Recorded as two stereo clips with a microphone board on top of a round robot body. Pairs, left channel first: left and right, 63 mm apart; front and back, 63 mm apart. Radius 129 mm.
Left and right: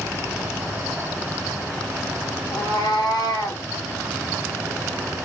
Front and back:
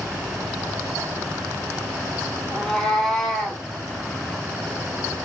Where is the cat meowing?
85° left, 4 m; by 3.6 s 90° left, 2.5 m.